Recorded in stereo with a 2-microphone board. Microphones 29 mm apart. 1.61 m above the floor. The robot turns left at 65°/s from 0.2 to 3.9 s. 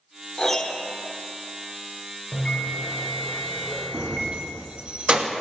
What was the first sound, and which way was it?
A piano, 20° left (ahead or behind).